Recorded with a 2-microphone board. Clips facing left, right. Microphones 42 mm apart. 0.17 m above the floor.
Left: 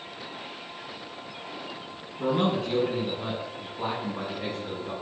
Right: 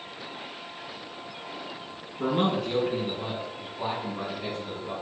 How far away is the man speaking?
About 1.5 m.